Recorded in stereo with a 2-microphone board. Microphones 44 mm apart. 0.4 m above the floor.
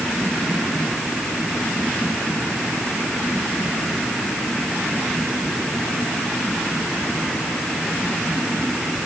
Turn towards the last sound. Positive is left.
No sound to turn to.